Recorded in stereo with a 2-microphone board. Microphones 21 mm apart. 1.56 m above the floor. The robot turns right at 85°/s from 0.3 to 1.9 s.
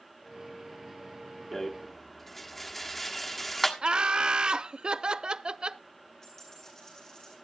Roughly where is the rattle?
Left.